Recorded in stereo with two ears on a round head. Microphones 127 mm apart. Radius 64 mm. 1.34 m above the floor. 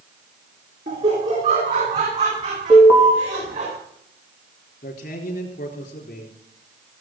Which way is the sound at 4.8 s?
60° left (ahead or behind).